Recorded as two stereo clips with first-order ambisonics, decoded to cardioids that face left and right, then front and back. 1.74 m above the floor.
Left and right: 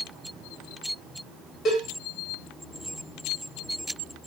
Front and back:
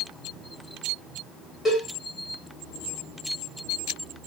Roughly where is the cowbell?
Left.